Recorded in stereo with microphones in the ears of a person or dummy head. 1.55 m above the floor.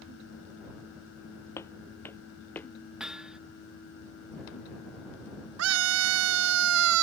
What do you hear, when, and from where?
1.6 s footsteps: 20° left (ahead or behind); by 2.7 s 15° left (ahead or behind)
3.0 s hammering: centre (ahead or behind)
5.6 s a scream: 80° right